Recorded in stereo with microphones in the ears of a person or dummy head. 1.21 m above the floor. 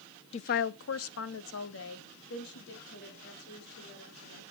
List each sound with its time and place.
0.3 s a woman speaking: 35° left (ahead or behind), 0.6 m; by 4.4 s 55° left (ahead or behind), 4.5 m